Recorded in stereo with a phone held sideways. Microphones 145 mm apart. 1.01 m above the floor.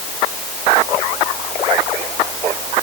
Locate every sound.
Only background noise.